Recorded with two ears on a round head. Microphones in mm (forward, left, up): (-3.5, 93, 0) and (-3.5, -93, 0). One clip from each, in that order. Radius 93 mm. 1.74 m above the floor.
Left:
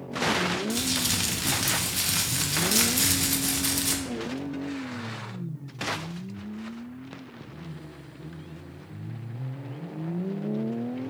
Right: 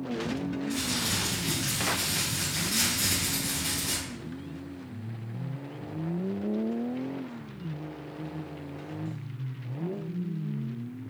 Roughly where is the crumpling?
Left.